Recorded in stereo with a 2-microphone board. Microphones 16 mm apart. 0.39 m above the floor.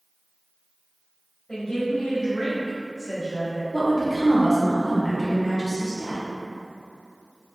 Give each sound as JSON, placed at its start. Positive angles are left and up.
{"t": 1.5, "sound": "a woman speaking", "side_deg": 45, "distance_m": 1.8}
{"t": 3.7, "sound": "a woman speaking", "side_deg": -20, "distance_m": 0.8}